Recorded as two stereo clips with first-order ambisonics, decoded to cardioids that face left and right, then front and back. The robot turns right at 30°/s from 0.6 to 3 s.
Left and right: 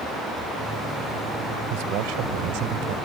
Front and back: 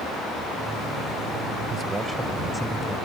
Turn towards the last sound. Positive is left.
turn(degrees=-75)